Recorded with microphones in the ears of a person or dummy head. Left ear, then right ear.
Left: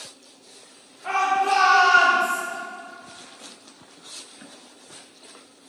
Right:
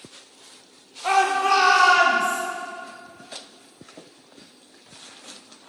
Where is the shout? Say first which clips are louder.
Right 2 dB; 25° right (ahead or behind), 1.2 m; by 2.4 s centre (ahead or behind), 1.8 m.